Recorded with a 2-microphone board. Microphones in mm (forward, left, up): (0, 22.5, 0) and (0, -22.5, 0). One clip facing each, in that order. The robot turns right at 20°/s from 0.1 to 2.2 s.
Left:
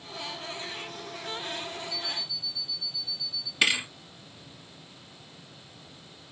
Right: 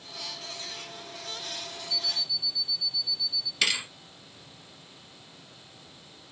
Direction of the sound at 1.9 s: 70° right (ahead or behind).